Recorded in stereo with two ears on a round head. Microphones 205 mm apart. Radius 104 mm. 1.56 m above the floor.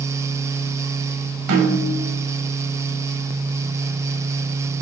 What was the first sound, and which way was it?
A snare drum, 85° right.